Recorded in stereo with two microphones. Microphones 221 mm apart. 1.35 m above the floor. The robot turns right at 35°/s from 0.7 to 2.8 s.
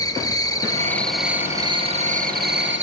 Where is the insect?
165° left, 1.6 m; by 2.8 s 120° right, 1.6 m.